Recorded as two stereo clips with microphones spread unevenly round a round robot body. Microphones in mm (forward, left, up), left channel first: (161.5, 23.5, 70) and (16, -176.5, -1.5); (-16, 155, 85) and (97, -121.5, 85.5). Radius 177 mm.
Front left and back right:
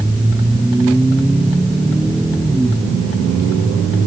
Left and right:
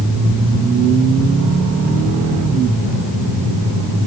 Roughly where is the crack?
No crack in this recording.